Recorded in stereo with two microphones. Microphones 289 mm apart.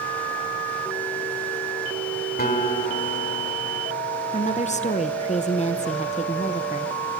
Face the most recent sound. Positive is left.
turn(degrees=25)  # may be behind; listen again after turning